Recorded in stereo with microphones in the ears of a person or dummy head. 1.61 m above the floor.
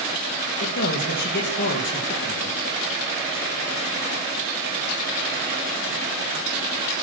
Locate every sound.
0.6 s a man speaking: 55° left (ahead or behind), 2.5 m